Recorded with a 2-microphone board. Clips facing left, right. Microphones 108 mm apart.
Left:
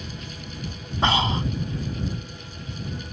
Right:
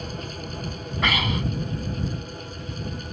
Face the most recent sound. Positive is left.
turn(degrees=30)  # may be behind; listen again after turning